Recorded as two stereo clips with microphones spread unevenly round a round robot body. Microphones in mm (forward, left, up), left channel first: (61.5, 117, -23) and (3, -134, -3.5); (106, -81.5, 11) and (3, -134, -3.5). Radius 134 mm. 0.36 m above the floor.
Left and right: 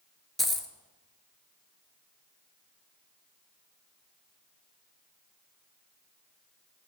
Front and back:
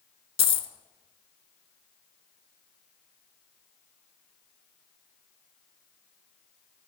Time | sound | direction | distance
0.4 | a dropped coin | 15° right | 0.6 m